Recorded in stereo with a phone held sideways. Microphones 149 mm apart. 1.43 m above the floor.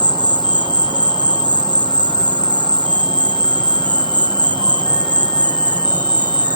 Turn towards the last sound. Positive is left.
turn(degrees=-30)  # may be behind; listen again after turning